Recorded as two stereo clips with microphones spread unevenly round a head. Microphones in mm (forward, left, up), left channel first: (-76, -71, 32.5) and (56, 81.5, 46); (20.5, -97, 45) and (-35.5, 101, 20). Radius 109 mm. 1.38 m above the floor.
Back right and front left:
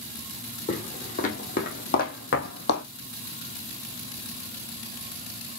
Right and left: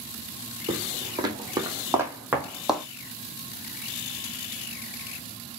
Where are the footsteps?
175° left, 2.5 m; by 2.9 s 160° right, 2 m.